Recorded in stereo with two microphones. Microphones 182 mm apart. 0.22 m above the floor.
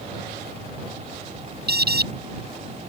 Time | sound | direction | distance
1.7 | an alarm | 60° right (ahead or behind) | ?